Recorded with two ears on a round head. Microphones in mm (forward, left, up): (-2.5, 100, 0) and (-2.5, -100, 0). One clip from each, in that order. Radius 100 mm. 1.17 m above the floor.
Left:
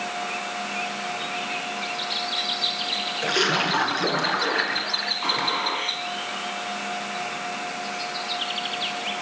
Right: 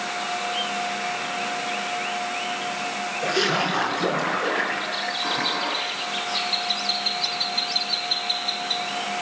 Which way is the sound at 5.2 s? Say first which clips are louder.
Right 1 dB; 80° left.